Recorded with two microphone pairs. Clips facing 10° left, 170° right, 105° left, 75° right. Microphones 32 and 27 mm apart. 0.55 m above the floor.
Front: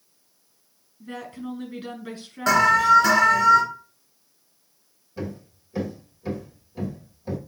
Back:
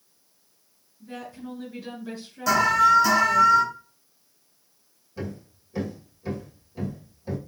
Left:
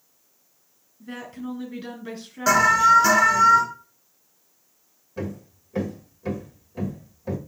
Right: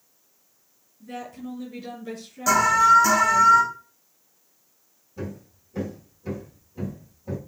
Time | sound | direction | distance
1.0 | a woman speaking | 55° left | 3.5 m
2.5 | an alarm | 50° left | 3 m
5.2 | hammering | 95° left | 2.0 m